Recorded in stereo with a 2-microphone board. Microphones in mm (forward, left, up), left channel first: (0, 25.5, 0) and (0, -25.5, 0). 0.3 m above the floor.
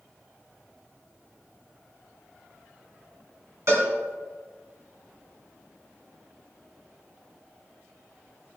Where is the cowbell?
65° right (ahead or behind), 2.5 m.